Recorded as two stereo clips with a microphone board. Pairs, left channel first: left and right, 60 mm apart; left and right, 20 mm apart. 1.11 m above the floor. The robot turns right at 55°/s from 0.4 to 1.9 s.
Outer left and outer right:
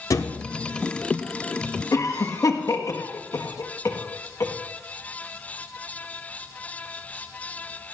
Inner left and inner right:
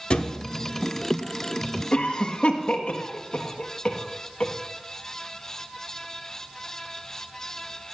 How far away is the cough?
About 1.5 m.